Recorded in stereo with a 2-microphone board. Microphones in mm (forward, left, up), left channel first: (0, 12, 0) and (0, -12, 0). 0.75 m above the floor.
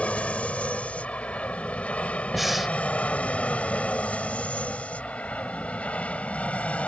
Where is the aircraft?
70° left (ahead or behind).